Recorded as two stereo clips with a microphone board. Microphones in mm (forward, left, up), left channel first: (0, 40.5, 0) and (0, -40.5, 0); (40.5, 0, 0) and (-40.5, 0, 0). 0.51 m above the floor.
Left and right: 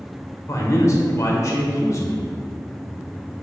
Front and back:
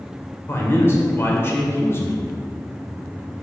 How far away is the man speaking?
About 1.9 m.